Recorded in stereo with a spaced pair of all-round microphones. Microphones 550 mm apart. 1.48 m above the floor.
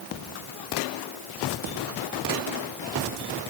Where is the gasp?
I don't hear a gasp.